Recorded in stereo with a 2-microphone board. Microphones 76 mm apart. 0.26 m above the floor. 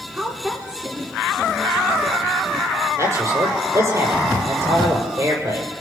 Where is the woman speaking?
15° right (ahead or behind), 2.5 m.